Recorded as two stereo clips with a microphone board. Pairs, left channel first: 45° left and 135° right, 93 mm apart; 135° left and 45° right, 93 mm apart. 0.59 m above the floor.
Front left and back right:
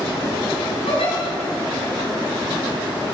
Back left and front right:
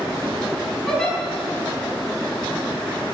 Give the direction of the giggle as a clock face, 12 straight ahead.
10 o'clock.